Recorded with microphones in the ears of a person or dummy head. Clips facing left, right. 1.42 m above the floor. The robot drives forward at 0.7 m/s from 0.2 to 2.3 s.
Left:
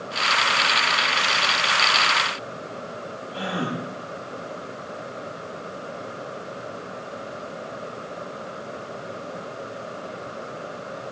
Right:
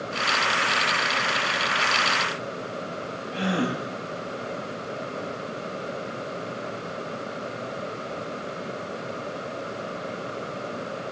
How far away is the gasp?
About 9.5 m.